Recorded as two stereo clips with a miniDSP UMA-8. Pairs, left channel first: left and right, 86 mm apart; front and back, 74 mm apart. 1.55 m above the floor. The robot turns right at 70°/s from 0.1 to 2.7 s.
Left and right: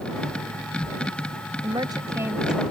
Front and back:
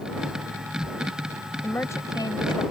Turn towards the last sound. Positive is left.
turn(degrees=5)